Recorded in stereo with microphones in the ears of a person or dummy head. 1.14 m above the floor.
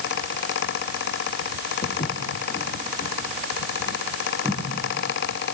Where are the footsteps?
40° left (ahead or behind), 2.5 m; by 4.6 s 5° left (ahead or behind), 2.5 m.